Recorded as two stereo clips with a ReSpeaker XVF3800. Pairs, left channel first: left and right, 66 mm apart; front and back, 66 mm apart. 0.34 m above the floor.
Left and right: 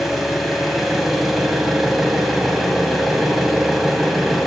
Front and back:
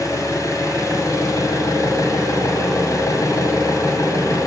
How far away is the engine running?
About 1.6 m.